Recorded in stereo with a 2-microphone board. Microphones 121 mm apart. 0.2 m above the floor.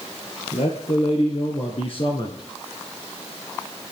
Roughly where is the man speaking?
Left.